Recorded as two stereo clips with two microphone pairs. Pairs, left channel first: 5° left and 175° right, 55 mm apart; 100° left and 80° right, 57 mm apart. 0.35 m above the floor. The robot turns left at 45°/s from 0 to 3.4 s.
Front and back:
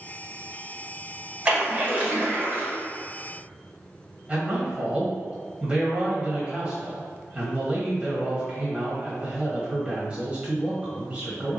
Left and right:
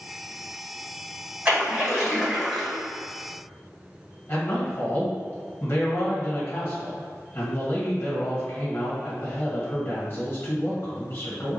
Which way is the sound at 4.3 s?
130° left.